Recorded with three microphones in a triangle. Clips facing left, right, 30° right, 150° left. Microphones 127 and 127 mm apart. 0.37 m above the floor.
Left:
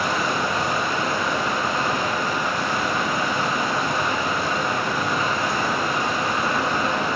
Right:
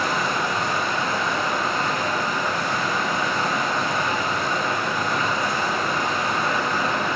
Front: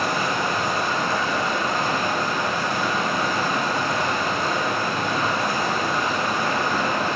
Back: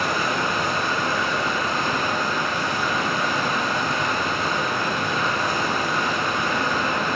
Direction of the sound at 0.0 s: 5° left.